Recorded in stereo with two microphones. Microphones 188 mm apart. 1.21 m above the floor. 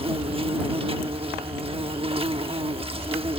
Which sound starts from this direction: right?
An insect, at 0.0 s.